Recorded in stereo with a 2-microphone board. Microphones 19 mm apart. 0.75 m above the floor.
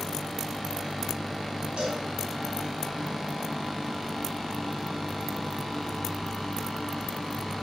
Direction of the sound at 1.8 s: 60° right (ahead or behind).